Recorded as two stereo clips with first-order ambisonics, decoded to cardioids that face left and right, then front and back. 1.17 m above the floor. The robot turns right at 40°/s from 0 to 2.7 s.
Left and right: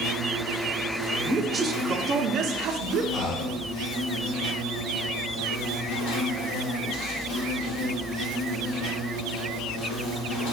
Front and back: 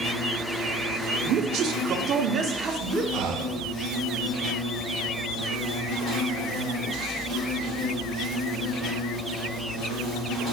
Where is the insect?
30° right, 1.6 m; by 10.5 s 75° left, 1.6 m.